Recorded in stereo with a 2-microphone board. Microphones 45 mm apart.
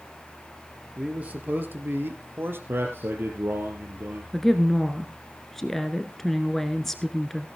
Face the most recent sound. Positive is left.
turn(degrees=10)  # may be behind; listen again after turning